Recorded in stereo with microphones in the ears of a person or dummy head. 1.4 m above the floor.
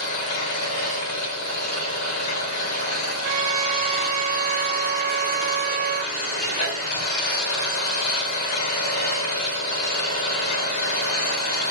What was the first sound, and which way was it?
An engine running, 55° left (ahead or behind).